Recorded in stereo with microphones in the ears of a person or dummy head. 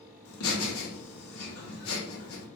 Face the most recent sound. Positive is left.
turn(degrees=65)  # may be behind; listen again after turning